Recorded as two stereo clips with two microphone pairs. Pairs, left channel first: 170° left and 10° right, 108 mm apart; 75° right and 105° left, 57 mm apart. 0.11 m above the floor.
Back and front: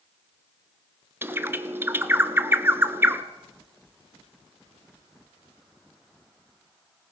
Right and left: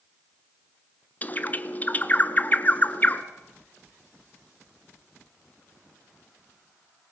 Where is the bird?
60° right, 1.0 m.